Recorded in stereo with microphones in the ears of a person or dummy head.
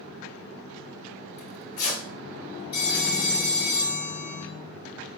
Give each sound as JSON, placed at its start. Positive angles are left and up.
{"t": 1.4, "sound": "tearing paper", "side_deg": 45, "distance_m": 1.5}
{"t": 2.7, "sound": "a phone ringing", "side_deg": 25, "distance_m": 1.4}